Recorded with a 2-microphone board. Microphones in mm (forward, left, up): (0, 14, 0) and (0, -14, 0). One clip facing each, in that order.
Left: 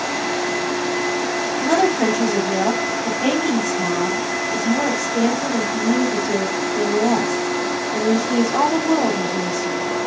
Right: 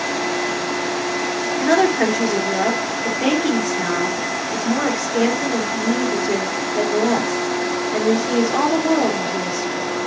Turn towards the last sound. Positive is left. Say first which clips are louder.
# right 2 dB
turn(degrees=-40)  # may be behind; listen again after turning